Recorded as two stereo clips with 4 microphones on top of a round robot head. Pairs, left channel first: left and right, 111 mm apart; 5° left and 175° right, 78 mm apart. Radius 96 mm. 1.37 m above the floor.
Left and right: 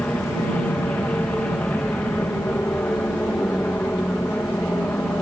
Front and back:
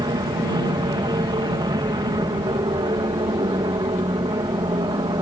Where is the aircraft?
170° left.